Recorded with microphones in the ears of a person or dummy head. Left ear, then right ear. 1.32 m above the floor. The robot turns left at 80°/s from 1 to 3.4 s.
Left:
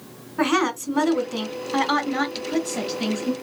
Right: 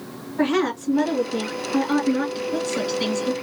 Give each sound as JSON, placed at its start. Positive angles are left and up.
{"t": 0.4, "sound": "a woman speaking", "azimuth_deg": 145, "distance_m": 1.8}